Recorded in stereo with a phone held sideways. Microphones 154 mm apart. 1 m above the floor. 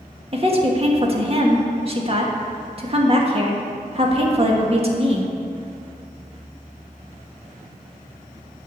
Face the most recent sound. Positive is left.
turn(degrees=-40)  # may be behind; listen again after turning